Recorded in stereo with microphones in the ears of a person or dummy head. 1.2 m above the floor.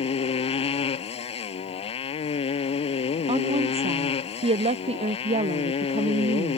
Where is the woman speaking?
30° right (ahead or behind).